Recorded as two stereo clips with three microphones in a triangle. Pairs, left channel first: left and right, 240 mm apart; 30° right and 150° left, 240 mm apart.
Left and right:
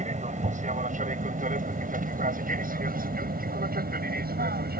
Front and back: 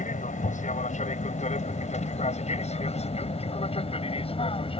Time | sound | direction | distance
0.0 | an aircraft | 55° right | ?